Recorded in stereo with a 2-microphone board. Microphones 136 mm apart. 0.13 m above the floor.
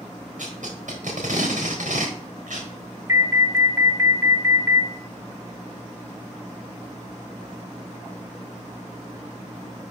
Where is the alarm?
20° right (ahead or behind), 1.1 m.